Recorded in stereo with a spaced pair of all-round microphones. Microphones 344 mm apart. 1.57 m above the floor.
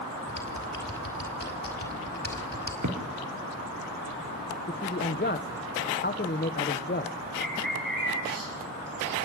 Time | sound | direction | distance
0.3 | typing on a keyboard | 30° left (ahead or behind) | 5 m
2.8 | a thud | 55° right (ahead or behind) | 5 m
4.7 | a man speaking | 30° left (ahead or behind) | 1.3 m
7.4 | a bird | 70° right (ahead or behind) | 10 m